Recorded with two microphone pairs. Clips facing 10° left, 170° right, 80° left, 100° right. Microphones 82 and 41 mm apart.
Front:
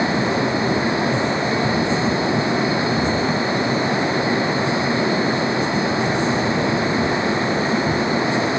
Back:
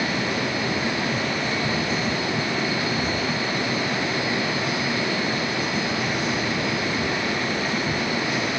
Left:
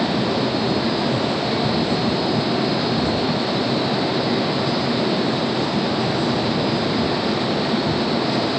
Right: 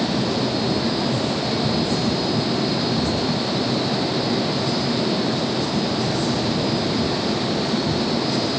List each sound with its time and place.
Only background noise.